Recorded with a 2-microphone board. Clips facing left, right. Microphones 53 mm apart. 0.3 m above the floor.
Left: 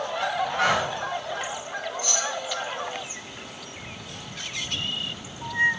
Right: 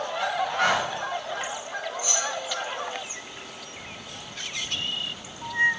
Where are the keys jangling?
20° right (ahead or behind), 0.6 m.